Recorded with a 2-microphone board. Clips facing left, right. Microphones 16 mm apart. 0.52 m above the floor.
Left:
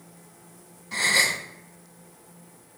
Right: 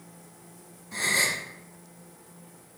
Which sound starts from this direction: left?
A gasp, at 0.9 s.